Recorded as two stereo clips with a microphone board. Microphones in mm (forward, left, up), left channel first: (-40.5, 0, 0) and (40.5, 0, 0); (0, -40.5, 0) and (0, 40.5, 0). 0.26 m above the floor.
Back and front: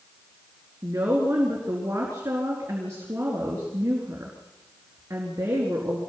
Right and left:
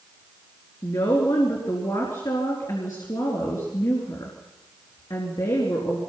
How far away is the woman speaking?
About 4.5 m.